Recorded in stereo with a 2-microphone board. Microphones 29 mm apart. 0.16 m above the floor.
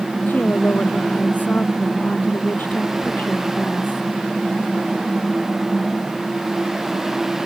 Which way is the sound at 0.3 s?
75° left (ahead or behind).